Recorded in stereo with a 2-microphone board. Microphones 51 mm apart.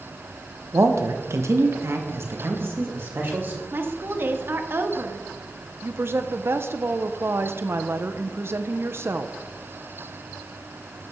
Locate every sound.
0.7 s a man speaking: 70° right (ahead or behind), 1.2 m; by 3.6 s 45° right (ahead or behind), 2.5 m
3.7 s a woman speaking: 50° right (ahead or behind), 1.4 m
5.8 s a woman speaking: 50° right (ahead or behind), 0.8 m